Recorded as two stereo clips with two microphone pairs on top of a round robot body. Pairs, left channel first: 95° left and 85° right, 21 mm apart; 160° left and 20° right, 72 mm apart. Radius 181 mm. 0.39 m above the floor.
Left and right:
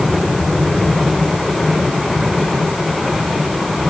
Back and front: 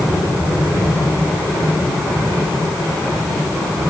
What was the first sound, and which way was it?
Only background noise.